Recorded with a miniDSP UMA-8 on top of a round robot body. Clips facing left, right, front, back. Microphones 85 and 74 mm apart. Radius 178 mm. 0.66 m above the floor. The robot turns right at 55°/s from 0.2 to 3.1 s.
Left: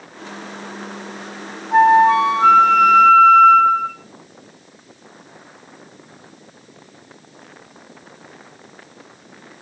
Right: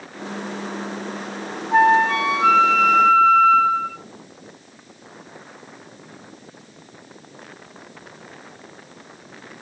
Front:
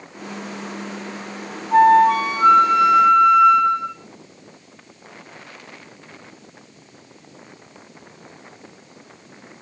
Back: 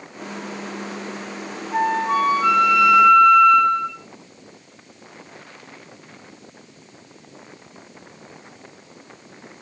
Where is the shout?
No shout in this recording.